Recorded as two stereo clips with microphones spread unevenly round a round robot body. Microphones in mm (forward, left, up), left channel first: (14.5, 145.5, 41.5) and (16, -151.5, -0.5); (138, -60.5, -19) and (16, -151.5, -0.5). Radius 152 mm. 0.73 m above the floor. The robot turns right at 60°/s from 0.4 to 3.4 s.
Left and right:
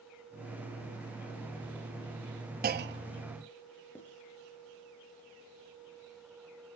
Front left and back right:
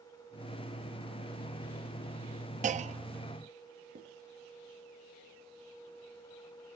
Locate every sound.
2.6 s a clunk: 125° right, 0.8 m; by 3.4 s 80° right, 0.8 m
4.0 s writing: 175° left, 4 m